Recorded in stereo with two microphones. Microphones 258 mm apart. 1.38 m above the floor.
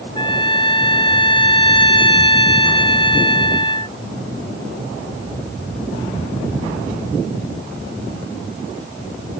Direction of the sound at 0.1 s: 20° left (ahead or behind).